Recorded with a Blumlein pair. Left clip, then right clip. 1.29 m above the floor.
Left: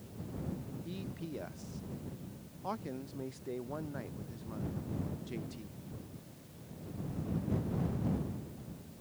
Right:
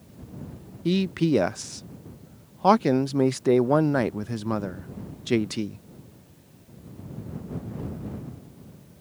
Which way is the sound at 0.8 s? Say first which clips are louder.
Right 24 dB; 40° right.